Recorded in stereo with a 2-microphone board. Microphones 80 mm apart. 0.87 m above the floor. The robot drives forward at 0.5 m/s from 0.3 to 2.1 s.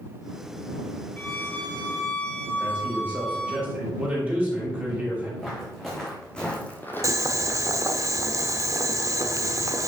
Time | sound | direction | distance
1.2 | a violin | 20° left (ahead or behind) | 1.3 m
2.6 | a man speaking | 20° right (ahead or behind) | 4 m
5.4 | footsteps | centre (ahead or behind) | 3.5 m
7.0 | boiling | 40° right (ahead or behind) | 0.7 m